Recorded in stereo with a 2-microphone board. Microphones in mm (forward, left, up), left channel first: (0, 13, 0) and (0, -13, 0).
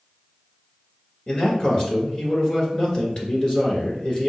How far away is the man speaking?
About 1.4 m.